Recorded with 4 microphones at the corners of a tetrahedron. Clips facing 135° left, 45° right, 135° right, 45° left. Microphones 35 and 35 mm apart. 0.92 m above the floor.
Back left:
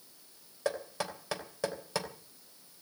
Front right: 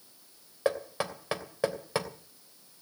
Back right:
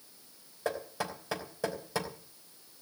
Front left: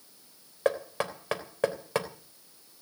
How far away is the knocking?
About 3 m.